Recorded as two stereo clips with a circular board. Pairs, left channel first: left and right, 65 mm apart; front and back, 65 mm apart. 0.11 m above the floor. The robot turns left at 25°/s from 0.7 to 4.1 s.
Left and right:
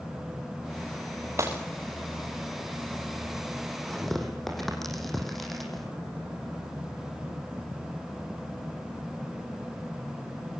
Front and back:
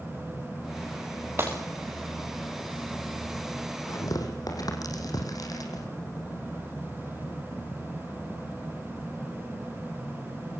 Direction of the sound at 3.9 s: 10° left.